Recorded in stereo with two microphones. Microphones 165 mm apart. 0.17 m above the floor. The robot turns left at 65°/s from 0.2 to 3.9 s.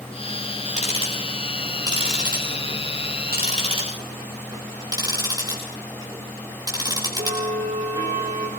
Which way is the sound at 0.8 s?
45° left (ahead or behind).